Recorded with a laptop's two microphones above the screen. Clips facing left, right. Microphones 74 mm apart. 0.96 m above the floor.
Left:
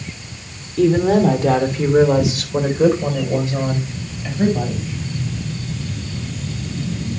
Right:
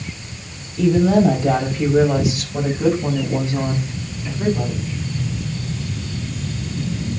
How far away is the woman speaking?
About 3 m.